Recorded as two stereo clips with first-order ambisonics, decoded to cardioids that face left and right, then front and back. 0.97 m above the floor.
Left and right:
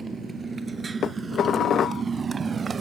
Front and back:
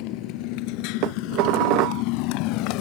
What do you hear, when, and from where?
0.0 s a motorcycle: 15° right; by 2.8 s 20° right
1.0 s dishes clattering: 150° left